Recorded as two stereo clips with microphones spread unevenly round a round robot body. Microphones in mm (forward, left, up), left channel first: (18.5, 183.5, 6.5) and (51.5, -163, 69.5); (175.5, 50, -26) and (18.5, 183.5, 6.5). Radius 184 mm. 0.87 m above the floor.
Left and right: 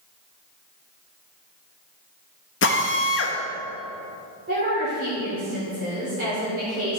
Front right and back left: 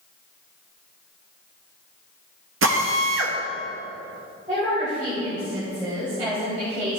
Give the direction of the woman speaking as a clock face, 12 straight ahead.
5 o'clock.